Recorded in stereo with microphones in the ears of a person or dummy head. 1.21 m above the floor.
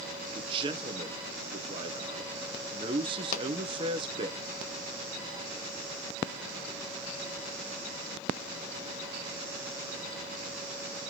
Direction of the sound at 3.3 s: 40° left (ahead or behind).